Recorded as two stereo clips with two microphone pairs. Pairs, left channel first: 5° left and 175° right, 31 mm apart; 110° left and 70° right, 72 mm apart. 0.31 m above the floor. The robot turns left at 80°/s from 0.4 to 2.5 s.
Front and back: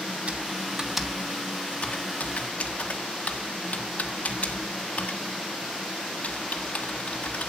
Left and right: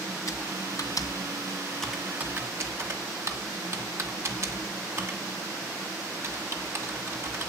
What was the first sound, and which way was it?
Typing on a keyboard, 140° left.